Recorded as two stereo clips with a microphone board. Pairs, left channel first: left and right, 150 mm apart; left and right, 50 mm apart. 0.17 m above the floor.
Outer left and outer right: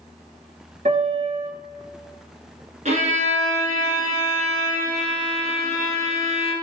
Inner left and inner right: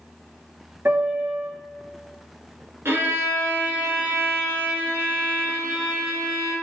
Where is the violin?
55° right (ahead or behind), 1.6 m.